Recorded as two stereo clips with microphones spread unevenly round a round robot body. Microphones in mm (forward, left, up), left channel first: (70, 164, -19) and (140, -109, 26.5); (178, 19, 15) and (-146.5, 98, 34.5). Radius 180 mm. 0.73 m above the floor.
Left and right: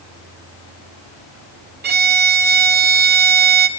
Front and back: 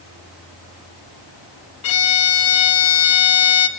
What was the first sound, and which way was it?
A violin, 20° right.